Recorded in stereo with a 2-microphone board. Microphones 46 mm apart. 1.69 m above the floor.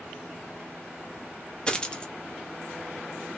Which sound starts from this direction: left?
A dropped coin, at 1.7 s.